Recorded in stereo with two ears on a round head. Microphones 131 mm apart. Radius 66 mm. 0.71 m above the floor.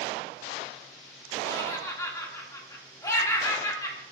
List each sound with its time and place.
1.4 s laughter: 20° left (ahead or behind), 2.0 m